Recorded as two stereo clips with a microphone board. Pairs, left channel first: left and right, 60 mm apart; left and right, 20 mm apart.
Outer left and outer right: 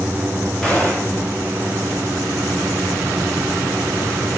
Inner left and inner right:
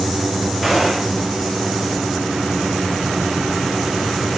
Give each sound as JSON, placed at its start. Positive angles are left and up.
{"t": 0.6, "sound": "a gunshot", "side_deg": 10, "distance_m": 4.0}